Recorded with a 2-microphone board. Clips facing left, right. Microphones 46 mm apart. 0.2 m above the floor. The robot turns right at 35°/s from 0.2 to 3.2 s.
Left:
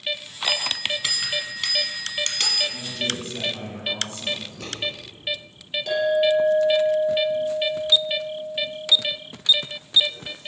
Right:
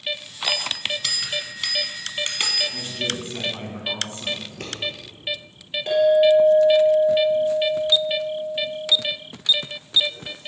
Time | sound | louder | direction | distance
0.4 | a bell | even | 140° left | 0.8 m
2.7 | a man speaking | even | 40° right (ahead or behind) | 1.6 m
4.4 | scissors | right 1 dB | 55° right (ahead or behind) | 2.5 m
5.9 | a clink | right 5 dB | 25° right (ahead or behind) | 2.5 m